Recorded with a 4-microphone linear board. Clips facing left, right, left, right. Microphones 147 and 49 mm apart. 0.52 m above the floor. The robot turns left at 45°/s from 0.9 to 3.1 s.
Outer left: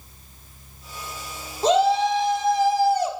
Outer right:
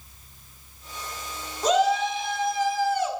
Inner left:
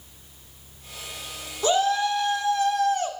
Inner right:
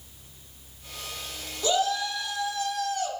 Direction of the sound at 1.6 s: 130° left.